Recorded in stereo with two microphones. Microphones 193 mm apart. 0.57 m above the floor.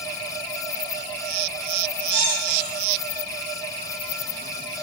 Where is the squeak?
35° left (ahead or behind), 4 m.